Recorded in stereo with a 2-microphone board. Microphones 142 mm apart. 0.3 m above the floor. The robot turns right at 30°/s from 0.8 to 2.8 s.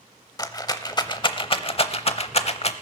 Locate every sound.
0.4 s a rattle: 25° left (ahead or behind), 0.7 m; by 2.7 s 45° left (ahead or behind), 0.7 m